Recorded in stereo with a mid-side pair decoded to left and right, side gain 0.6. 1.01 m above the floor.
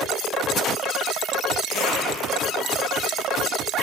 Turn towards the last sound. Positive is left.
turn(degrees=60)